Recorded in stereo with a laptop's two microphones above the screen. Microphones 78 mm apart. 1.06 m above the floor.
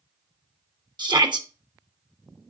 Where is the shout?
70° right (ahead or behind), 1.2 m.